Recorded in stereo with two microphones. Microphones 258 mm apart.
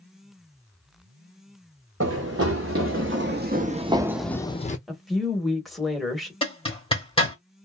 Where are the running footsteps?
65° right (ahead or behind), 1.3 m; by 4.8 s 30° left (ahead or behind), 0.6 m.